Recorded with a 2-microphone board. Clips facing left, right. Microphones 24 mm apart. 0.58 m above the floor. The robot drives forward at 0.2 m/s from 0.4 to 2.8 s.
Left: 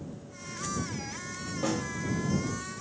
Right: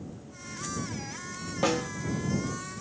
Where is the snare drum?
55° right (ahead or behind), 0.6 m.